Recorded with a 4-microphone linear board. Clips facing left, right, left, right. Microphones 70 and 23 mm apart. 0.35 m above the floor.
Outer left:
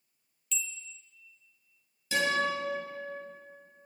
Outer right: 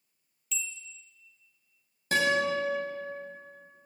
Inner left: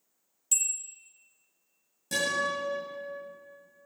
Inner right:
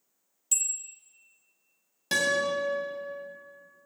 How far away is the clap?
I don't hear a clap.